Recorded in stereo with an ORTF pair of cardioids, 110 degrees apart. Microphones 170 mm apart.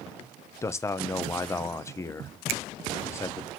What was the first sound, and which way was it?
A man speaking, 15° left.